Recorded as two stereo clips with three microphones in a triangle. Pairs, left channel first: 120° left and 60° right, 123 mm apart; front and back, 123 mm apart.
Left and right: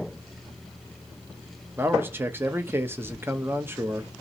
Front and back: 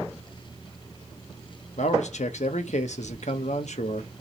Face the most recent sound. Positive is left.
turn(degrees=10)